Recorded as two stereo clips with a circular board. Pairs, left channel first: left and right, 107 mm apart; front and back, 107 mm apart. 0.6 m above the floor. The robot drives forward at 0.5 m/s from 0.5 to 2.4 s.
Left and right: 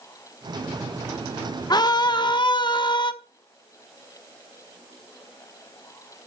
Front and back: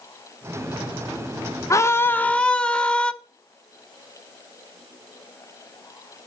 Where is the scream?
50° left, 1.0 m; by 3.1 s 75° left, 0.9 m.